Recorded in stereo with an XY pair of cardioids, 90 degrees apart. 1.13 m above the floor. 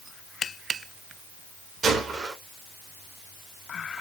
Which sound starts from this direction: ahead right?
A gunshot, at 1.8 s.